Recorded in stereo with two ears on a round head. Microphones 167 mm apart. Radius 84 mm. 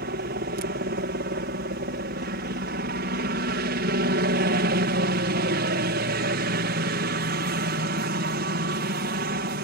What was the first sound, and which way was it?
A helicopter, 55° right (ahead or behind).